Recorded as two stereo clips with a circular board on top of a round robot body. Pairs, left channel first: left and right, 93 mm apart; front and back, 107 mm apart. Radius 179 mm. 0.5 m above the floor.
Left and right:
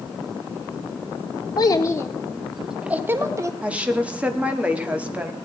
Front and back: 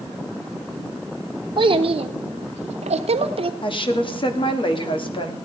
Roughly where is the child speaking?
Behind left.